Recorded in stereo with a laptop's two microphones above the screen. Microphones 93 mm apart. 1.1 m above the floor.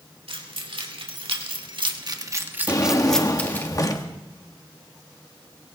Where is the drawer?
40° left (ahead or behind), 0.9 m.